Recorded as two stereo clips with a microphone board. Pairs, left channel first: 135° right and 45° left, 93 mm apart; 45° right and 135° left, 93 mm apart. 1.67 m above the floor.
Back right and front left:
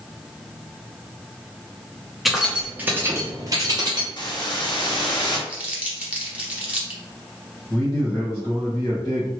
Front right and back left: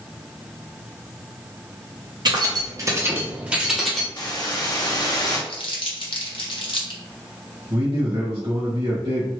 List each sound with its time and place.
2.2 s keys jangling: 135° left, 0.9 m; by 4.1 s 40° left, 0.9 m
4.2 s a hiss: 95° right, 0.8 m
5.5 s crumpling: 30° right, 0.8 m
7.7 s a man speaking: 160° left, 1.5 m